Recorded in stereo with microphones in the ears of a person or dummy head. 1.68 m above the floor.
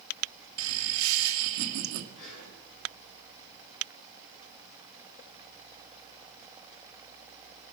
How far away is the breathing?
About 8.5 m.